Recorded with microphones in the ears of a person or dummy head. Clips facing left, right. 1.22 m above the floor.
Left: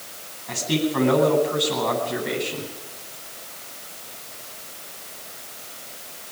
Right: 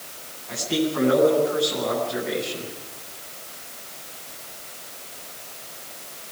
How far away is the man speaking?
About 10 m.